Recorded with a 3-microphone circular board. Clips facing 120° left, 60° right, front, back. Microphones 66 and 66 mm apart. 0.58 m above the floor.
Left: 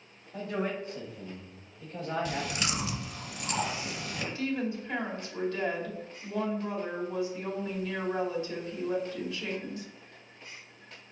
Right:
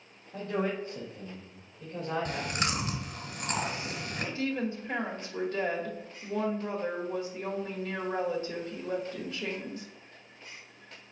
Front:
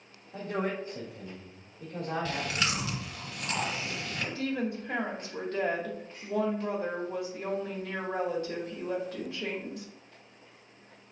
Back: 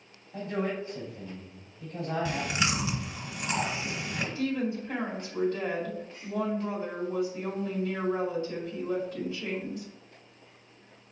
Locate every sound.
0.3 s a man speaking: 5° right, 2 m
2.2 s chewing: 105° right, 1.5 m
4.3 s a woman speaking: 10° right, 1.8 m